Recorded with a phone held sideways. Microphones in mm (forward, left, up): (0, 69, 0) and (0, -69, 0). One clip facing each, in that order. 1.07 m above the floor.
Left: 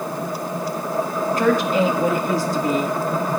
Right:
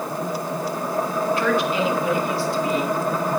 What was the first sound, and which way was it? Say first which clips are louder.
A woman speaking: left 6 dB; 40° left (ahead or behind).